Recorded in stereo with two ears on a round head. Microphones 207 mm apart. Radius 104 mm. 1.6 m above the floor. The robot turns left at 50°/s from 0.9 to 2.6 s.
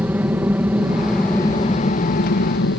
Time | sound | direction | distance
0.0 | an aircraft | 170° right | ?